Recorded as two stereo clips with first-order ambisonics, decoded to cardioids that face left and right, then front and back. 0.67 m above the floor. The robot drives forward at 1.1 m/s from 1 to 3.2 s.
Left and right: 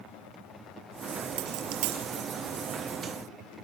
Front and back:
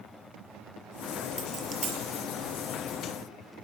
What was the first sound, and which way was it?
A dropped coin, 100° right.